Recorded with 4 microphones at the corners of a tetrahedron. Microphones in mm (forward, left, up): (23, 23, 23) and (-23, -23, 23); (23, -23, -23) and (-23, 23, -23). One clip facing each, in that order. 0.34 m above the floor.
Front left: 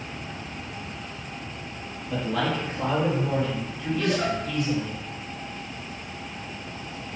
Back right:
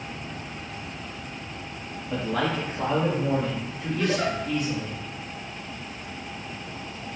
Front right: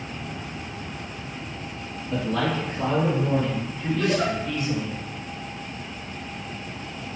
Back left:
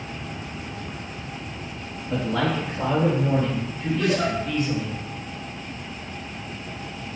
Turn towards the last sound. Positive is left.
turn(degrees=-155)